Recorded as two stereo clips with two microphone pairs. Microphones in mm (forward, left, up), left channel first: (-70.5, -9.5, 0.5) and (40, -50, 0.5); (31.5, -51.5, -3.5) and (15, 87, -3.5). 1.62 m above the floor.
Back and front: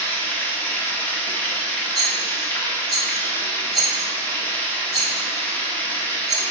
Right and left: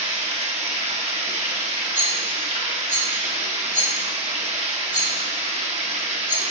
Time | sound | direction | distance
0.0 | running water | 90° left | 1.2 m
1.9 | a rattle | 110° right | 2.5 m